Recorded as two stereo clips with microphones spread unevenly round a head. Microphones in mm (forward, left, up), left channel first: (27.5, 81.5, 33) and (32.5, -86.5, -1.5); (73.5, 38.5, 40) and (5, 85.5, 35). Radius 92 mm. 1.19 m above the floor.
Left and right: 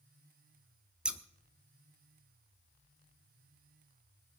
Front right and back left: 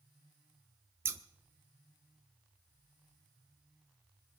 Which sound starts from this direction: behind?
Scissors, at 1.1 s.